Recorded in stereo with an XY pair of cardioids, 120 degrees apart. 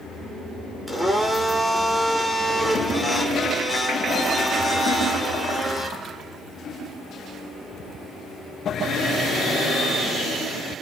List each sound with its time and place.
0.9 s a blender: 5° left, 4.5 m